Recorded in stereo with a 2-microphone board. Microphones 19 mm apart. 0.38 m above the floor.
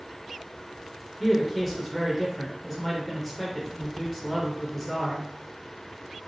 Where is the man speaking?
Centre (ahead or behind), 0.8 m.